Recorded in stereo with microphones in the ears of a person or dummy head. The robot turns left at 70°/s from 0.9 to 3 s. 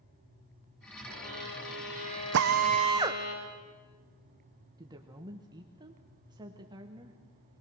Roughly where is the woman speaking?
Centre.